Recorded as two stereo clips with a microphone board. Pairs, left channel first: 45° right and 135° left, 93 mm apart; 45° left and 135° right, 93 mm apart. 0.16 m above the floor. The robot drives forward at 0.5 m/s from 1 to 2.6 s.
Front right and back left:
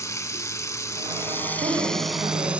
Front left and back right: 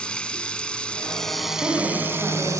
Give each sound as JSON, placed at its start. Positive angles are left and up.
{"t": 0.0, "sound": "running water", "azimuth_deg": -25, "distance_m": 0.7}
{"t": 1.6, "sound": "a woman speaking", "azimuth_deg": 160, "distance_m": 9.0}